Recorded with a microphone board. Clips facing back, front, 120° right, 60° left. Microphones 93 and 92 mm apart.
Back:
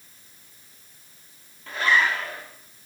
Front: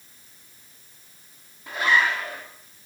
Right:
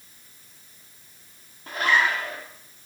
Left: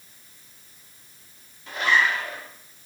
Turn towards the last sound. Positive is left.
turn(degrees=-75)